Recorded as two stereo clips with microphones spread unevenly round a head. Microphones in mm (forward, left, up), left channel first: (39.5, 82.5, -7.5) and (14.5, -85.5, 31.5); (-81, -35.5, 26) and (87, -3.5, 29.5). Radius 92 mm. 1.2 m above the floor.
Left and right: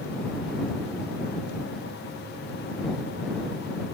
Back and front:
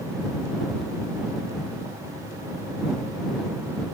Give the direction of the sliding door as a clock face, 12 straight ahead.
I don't hear a sliding door.